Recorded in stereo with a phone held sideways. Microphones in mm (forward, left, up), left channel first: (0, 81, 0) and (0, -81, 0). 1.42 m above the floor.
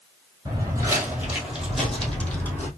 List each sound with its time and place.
0.5 s footsteps: 25° right (ahead or behind), 1.7 m; by 2.7 s 15° left (ahead or behind), 2 m